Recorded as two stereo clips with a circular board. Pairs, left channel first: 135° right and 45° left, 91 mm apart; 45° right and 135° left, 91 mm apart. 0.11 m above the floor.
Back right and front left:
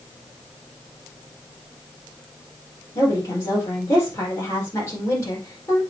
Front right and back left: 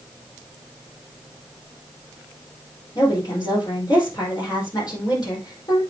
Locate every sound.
3.0 s a woman speaking: 80° right, 4.5 m